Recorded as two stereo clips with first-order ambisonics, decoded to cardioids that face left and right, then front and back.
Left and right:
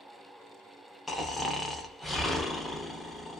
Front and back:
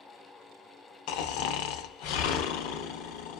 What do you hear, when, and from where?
1.1 s snoring: 5° left, 0.5 m